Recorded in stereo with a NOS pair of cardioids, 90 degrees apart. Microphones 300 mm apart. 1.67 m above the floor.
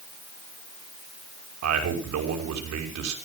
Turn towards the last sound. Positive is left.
turn(degrees=-65)